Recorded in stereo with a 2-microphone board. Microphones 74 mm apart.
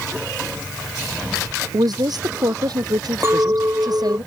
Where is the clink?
40° right (ahead or behind).